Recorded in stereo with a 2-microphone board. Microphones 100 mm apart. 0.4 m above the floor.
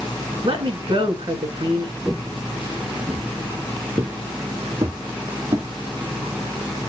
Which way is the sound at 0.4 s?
60° right (ahead or behind).